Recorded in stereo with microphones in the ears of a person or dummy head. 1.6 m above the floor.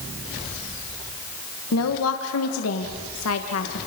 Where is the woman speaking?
85° left, 1.9 m.